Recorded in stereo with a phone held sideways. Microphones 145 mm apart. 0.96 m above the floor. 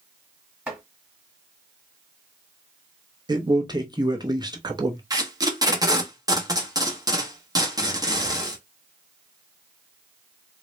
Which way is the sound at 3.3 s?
30° right (ahead or behind).